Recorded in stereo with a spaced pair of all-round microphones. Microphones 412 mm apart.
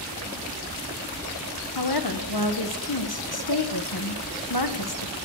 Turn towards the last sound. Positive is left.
turn(degrees=60)  # may be behind; listen again after turning